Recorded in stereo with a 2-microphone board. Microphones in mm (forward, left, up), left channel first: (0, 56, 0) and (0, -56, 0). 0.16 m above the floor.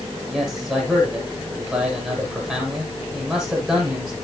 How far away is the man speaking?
About 7 m.